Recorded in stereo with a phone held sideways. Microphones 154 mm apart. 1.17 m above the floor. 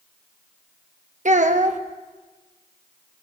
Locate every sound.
1.2 s a child speaking: 55° right (ahead or behind), 1.0 m